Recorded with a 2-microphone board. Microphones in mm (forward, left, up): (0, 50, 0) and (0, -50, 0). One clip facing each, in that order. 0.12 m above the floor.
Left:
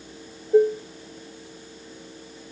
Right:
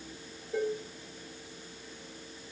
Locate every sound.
0.5 s dishes clattering: 40° left (ahead or behind), 1.3 m